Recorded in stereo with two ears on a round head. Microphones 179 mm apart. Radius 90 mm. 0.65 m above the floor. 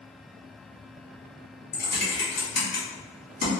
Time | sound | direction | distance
1.7 | typing on a keyboard | 45° left (ahead or behind) | 1.4 m